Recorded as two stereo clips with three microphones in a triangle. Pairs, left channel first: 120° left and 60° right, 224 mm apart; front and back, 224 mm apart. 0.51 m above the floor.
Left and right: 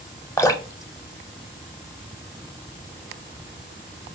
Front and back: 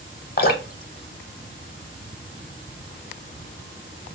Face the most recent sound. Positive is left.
turn(degrees=45)